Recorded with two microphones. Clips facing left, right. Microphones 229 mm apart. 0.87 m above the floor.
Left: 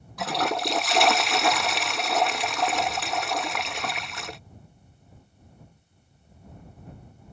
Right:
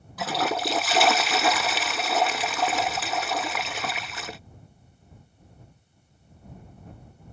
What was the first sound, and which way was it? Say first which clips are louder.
A toilet flushing: even; centre (ahead or behind).